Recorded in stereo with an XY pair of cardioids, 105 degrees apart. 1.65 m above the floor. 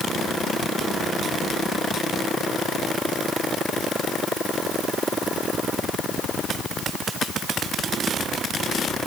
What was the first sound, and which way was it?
Only background noise.